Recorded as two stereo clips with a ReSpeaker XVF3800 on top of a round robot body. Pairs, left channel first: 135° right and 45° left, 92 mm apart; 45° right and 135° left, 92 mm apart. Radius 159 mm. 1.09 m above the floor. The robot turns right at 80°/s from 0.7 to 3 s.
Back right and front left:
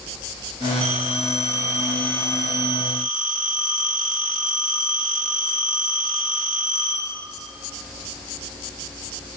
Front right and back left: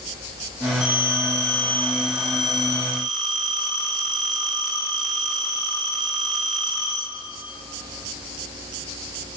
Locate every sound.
0.8 s a phone ringing: 50° left, 4 m; by 7.0 s 135° right, 4 m